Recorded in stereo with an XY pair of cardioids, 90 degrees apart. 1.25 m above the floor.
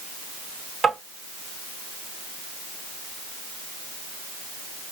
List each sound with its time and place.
0.8 s tapping: 35° right, 2 m